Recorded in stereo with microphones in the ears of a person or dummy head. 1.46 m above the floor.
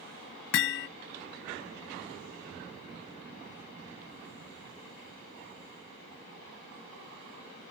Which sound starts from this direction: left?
Hammering, at 0.5 s.